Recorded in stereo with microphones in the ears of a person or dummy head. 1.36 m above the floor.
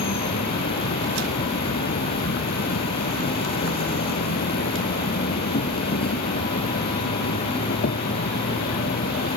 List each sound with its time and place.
0.0 s an insect: 50° left (ahead or behind)